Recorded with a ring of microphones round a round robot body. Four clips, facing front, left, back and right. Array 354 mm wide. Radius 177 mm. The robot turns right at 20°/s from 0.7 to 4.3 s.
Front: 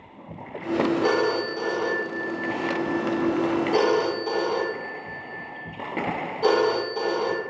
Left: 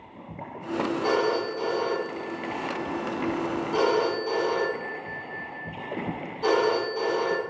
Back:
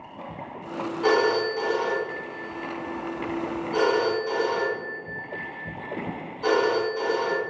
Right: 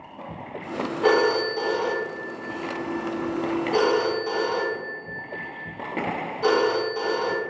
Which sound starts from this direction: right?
A phone ringing, at 1.0 s.